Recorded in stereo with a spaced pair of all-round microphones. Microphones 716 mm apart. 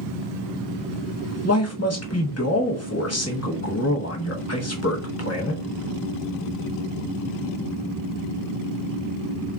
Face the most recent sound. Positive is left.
turn(degrees=20)  # may be behind; listen again after turning